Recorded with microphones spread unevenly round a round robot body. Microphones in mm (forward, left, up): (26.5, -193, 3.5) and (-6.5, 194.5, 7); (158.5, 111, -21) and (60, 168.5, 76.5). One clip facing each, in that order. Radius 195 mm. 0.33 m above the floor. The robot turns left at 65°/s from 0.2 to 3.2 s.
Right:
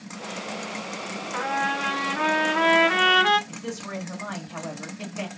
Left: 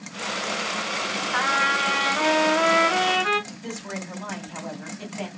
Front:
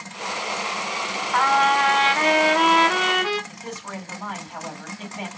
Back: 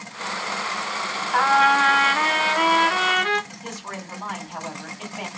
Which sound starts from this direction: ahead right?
A man speaking, at 3.5 s.